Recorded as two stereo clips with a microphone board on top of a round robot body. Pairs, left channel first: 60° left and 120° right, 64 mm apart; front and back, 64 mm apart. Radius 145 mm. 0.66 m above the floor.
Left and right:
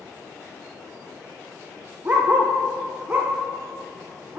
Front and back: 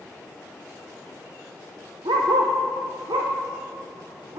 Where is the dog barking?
Straight behind, 0.5 m.